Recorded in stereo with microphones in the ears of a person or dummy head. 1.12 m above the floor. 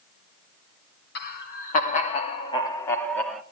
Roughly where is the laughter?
Left.